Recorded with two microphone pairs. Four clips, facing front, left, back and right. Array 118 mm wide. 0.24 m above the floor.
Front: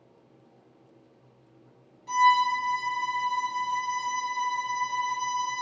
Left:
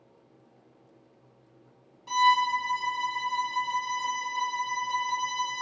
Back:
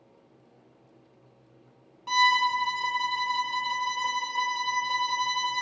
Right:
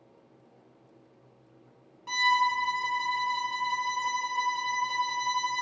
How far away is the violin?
About 0.8 m.